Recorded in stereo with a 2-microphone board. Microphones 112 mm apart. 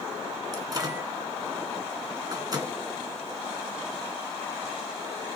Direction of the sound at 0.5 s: 35° right (ahead or behind).